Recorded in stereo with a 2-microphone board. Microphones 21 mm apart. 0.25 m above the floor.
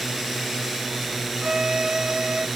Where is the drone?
10° right (ahead or behind).